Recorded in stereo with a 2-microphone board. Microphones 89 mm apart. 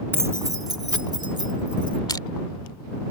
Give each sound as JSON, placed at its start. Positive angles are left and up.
{"t": 0.1, "sound": "keys jangling", "side_deg": -25}
{"t": 2.1, "sound": "crushing", "side_deg": 50}